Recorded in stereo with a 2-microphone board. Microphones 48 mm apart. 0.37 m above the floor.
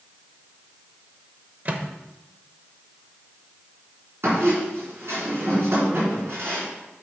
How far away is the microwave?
About 0.8 m.